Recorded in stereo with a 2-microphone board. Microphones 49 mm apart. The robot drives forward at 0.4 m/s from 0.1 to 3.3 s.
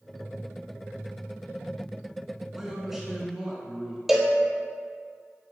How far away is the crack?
I don't hear a crack.